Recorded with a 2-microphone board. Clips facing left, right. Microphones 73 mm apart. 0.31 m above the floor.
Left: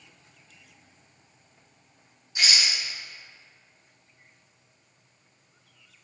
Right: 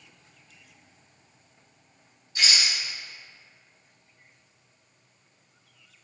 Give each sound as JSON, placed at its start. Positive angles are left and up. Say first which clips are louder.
{"t": 2.4, "sound": "a rattle", "louder": "even", "side_deg": 15, "distance_m": 1.2}